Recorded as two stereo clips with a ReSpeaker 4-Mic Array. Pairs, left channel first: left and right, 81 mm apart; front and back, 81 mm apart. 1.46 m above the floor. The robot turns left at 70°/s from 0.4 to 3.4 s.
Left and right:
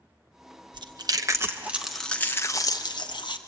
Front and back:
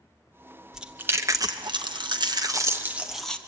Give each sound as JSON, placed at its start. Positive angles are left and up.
{"t": 0.7, "sound": "chewing", "azimuth_deg": -95, "distance_m": 1.0}